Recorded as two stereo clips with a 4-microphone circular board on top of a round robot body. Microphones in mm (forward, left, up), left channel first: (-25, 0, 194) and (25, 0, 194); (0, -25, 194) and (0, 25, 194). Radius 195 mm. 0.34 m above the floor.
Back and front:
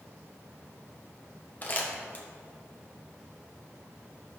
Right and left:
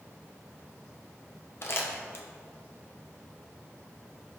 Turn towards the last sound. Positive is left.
turn(degrees=-125)